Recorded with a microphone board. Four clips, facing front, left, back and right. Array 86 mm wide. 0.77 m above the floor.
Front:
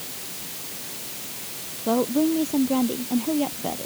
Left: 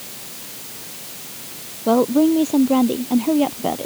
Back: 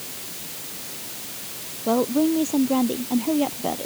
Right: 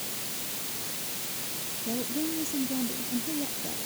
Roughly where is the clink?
No clink in this recording.